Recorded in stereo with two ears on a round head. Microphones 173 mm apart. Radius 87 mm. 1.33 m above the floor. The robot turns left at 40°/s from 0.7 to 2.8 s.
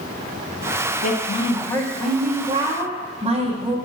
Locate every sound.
1.0 s a woman speaking: 40° left, 1.3 m; by 3.8 s 30° right, 1.3 m